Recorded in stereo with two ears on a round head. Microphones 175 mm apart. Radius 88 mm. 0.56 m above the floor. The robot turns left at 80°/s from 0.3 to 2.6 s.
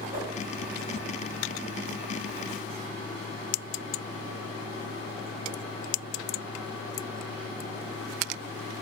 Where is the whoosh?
45° right (ahead or behind), 1.5 m.